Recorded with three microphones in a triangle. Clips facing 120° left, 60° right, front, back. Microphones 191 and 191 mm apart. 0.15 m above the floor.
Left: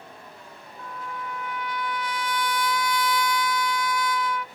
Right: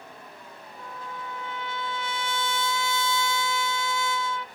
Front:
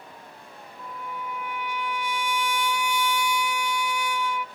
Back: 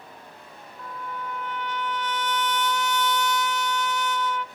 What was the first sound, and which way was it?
A trumpet, 65° right.